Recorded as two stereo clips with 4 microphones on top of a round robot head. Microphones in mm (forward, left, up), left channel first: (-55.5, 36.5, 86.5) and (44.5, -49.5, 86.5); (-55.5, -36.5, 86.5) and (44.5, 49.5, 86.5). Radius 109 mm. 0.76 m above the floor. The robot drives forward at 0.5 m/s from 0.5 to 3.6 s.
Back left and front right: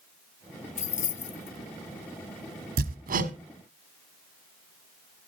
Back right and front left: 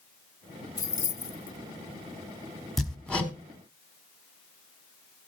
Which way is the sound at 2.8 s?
50° right.